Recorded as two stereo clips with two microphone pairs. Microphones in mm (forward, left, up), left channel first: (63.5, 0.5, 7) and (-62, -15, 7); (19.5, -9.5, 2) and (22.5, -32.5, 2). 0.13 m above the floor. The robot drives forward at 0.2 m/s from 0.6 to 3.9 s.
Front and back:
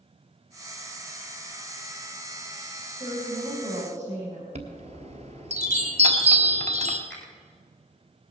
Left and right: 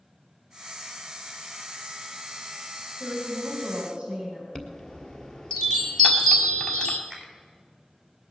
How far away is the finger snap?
About 5 m.